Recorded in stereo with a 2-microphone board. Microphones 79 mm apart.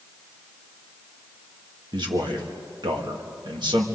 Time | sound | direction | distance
1.9 | a man speaking | 75° right (ahead or behind) | 2.5 m